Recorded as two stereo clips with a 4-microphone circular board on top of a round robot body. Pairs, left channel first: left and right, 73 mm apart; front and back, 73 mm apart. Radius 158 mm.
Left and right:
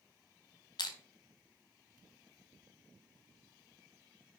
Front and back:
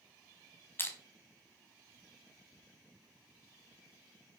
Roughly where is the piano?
I don't hear a piano.